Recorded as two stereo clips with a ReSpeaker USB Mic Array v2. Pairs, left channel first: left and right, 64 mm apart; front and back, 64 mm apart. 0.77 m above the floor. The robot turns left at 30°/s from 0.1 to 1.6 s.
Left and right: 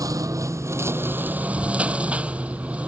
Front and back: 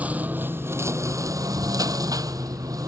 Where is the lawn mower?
115° right; by 2.9 s 160° right.